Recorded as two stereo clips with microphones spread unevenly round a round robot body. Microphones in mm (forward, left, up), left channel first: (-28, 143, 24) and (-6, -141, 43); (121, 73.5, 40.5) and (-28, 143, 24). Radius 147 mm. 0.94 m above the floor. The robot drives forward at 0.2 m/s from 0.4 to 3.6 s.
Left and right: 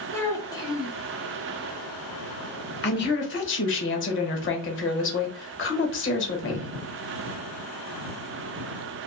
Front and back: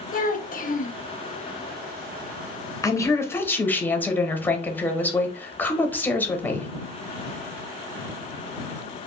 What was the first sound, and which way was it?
A child speaking, 15° left.